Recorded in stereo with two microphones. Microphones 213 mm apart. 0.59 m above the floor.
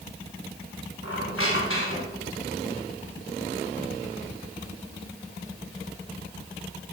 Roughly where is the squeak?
Left.